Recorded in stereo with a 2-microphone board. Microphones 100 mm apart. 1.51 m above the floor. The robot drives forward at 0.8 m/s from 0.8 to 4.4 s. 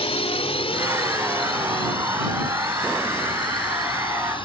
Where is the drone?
85° left; by 4.5 s 55° left (ahead or behind).